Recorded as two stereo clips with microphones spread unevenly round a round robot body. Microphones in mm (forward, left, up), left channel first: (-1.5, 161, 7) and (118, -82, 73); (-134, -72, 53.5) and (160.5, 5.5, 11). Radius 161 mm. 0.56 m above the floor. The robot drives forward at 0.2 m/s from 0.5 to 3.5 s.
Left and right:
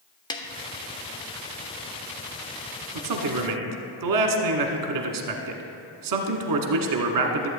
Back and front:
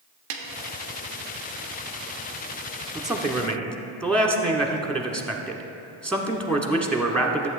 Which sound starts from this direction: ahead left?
A snare drum, at 0.3 s.